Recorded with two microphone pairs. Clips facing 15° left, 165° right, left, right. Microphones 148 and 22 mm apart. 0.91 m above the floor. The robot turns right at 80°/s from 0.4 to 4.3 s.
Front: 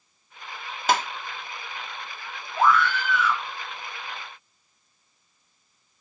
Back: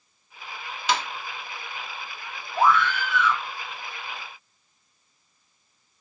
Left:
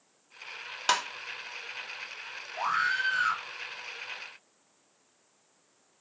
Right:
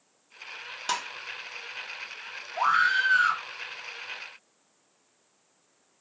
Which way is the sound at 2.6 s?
120° right.